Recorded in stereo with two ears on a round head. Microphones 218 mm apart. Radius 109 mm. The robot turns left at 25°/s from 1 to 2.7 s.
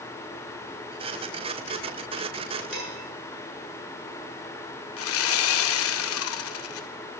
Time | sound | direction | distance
2.7 | dishes clattering | 5° right (ahead or behind) | 8 m
5.0 | sawing | 60° left (ahead or behind) | 0.7 m